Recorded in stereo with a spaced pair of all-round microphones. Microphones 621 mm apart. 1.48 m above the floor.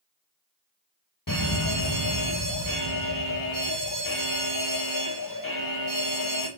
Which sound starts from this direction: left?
A fire alarm, at 1.3 s.